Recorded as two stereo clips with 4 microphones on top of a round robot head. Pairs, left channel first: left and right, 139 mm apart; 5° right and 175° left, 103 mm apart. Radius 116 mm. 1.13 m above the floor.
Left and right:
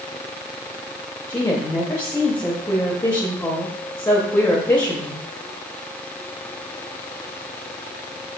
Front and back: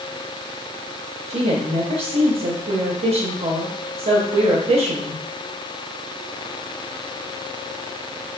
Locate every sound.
1.3 s a woman speaking: 170° left, 0.8 m